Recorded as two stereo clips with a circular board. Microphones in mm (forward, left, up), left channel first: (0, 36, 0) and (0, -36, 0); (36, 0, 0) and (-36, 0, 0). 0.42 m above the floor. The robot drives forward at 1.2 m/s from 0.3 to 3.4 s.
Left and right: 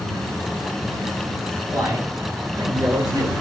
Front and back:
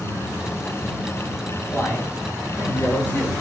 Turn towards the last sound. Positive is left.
turn(degrees=-65)